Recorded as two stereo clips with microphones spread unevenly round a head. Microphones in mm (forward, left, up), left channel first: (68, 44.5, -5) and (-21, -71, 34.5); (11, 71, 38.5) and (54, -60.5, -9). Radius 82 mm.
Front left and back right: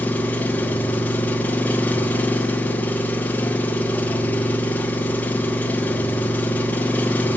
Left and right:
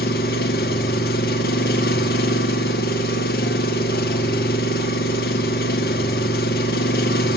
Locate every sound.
0.0 s an engine running: 135° left, 1.3 m